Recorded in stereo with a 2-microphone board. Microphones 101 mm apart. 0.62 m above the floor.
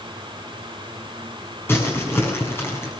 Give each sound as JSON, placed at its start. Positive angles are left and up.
{"t": 1.7, "sound": "crumpling", "side_deg": 25, "distance_m": 6.5}